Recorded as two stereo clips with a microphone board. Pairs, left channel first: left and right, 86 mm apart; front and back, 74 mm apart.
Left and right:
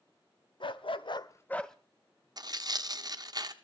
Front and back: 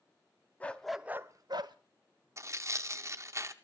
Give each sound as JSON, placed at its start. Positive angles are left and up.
{"t": 0.6, "sound": "a dog barking", "azimuth_deg": 70, "distance_m": 1.1}
{"t": 2.4, "sound": "tearing paper", "azimuth_deg": -130, "distance_m": 0.9}